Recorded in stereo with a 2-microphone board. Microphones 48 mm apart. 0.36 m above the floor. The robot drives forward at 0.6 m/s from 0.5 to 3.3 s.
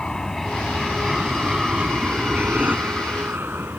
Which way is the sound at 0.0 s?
15° left (ahead or behind).